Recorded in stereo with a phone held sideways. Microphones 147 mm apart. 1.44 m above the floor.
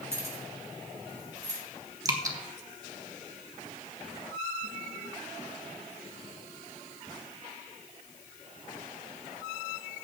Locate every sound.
0.1 s keys jangling: 20° right (ahead or behind), 3.5 m; by 1.6 s 25° right (ahead or behind), 4.5 m
2.0 s dripping: 25° right (ahead or behind), 1.2 m